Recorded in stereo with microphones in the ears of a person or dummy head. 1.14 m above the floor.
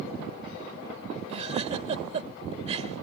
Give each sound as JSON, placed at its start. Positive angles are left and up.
{"t": 1.3, "sound": "a giggle", "side_deg": -40}